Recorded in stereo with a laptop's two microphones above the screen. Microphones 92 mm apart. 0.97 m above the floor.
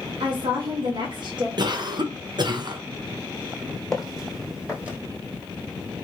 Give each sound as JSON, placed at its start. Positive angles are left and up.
{"t": 0.2, "sound": "a woman speaking", "side_deg": -55, "distance_m": 1.4}
{"t": 1.6, "sound": "a cough", "side_deg": -50, "distance_m": 0.5}
{"t": 3.9, "sound": "footsteps", "side_deg": 5, "distance_m": 1.8}